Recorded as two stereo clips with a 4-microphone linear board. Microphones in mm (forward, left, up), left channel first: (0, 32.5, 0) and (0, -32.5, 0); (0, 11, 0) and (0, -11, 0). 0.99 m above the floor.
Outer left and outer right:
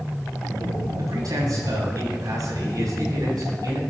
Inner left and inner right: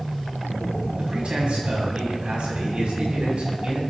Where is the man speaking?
70° right (ahead or behind), 7.5 m.